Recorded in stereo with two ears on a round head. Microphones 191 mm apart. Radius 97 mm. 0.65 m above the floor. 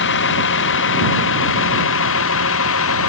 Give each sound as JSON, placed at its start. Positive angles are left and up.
{"t": 0.0, "sound": "a vehicle", "side_deg": 60}